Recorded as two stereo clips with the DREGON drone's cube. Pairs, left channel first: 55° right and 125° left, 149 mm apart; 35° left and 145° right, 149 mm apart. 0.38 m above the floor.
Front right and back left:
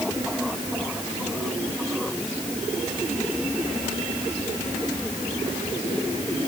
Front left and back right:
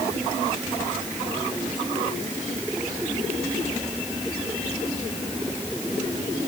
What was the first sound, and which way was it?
Only background noise.